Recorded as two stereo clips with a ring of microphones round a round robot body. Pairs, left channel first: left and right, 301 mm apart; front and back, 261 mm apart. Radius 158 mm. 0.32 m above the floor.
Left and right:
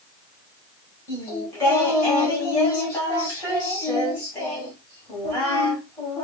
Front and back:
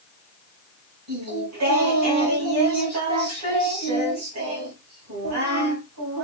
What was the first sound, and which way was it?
Singing, 170° left.